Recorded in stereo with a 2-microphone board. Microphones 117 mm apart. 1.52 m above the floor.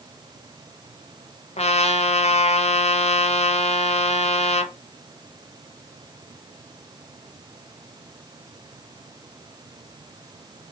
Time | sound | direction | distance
1.6 | a trumpet | 65° left (ahead or behind) | 0.8 m